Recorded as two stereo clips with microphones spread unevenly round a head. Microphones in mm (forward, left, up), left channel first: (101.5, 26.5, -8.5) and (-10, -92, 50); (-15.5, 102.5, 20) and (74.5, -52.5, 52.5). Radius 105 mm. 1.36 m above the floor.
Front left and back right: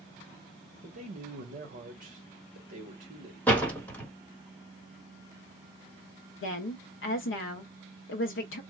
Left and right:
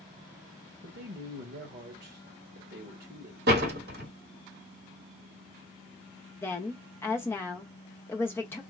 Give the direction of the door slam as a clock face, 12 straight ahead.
1 o'clock.